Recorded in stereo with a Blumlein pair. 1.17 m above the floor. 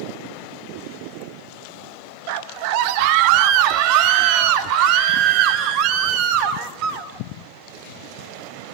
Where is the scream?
45° right, 1.2 m; by 7.1 s 40° right, 3.5 m.